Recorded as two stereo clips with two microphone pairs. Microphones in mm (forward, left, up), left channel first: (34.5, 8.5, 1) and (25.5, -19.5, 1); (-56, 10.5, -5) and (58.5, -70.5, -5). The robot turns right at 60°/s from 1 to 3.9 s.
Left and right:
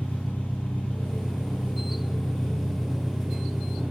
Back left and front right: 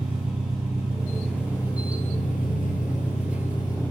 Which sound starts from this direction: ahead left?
An engine running, at 0.0 s.